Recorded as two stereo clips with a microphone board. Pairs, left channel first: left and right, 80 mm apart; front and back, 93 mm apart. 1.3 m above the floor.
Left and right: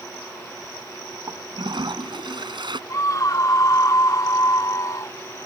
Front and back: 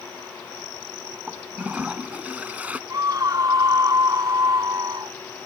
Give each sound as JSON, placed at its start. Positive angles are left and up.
{"t": 1.3, "sound": "a toilet flushing", "azimuth_deg": -105}
{"t": 2.9, "sound": "a scream", "azimuth_deg": 130}